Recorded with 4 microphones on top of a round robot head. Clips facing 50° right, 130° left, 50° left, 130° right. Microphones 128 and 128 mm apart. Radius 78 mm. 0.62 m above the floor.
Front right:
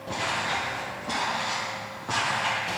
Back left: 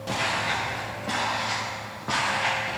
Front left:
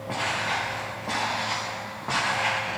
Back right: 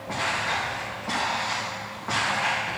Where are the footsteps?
120° left, 3.5 m; by 2.8 s 115° left, 5 m.